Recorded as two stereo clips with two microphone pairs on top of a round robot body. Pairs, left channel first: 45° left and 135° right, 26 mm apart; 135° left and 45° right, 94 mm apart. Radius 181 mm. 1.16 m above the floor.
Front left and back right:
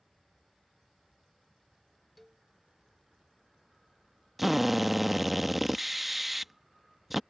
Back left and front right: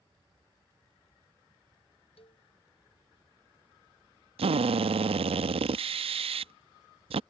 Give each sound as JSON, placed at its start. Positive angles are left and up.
{"t": 2.2, "sound": "a cowbell", "azimuth_deg": 135}
{"t": 4.4, "sound": "a drill", "azimuth_deg": -50}